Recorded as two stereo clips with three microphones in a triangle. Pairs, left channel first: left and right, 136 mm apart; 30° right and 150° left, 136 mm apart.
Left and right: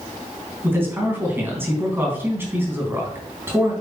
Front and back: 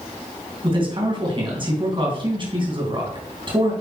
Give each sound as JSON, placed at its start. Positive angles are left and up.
{"t": 0.6, "sound": "a man speaking", "azimuth_deg": -160, "distance_m": 3.0}